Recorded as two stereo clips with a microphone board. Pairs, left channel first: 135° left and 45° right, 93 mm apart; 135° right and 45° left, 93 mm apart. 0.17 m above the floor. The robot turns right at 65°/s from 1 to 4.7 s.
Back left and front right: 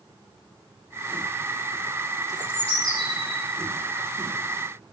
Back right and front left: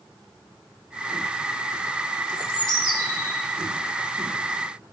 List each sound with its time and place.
2.3 s a bird: 125° right, 2 m; by 3.4 s 55° right, 2 m